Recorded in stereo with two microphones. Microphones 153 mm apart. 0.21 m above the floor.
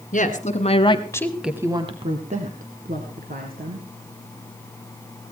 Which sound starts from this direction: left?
A woman speaking, at 0.1 s.